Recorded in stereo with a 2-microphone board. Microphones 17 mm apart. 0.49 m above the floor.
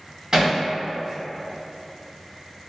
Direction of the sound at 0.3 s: 40° right (ahead or behind).